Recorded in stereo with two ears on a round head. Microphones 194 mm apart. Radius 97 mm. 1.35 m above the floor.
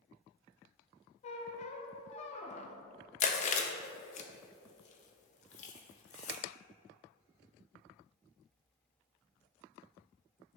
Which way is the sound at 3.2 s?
35° left (ahead or behind).